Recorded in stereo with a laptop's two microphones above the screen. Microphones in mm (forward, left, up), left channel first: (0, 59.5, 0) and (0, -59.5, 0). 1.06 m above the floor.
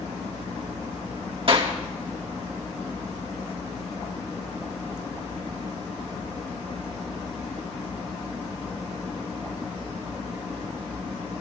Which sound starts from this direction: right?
A clap, at 1.5 s.